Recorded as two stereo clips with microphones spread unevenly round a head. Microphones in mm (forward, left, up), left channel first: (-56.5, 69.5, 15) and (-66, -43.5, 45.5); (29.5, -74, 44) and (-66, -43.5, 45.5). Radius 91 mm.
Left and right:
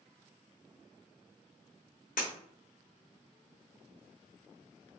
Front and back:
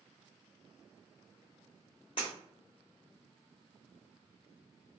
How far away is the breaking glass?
About 0.8 m.